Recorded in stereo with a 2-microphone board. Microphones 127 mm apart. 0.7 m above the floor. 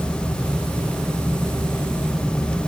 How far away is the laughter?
No laughter in this recording.